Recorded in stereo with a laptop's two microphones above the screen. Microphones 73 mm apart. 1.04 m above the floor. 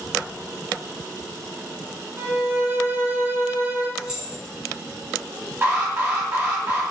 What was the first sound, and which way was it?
A violin, 30° right (ahead or behind).